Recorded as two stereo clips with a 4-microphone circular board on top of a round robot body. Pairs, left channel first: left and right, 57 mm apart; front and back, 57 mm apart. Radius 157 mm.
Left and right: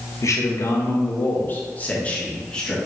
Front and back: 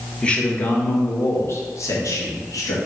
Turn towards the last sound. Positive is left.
turn(degrees=10)